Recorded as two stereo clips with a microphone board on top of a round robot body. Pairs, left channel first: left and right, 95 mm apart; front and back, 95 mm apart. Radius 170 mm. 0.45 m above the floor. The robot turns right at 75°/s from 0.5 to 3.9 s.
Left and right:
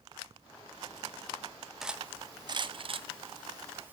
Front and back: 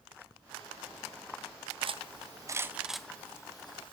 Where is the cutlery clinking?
175° right, 0.7 m; by 3.9 s 20° right, 0.7 m.